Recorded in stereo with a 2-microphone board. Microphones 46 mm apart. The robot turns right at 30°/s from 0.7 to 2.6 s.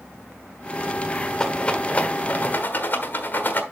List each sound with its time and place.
1.4 s a rattle: 20° left (ahead or behind), 1.3 m; by 3.6 s 45° left (ahead or behind), 1.3 m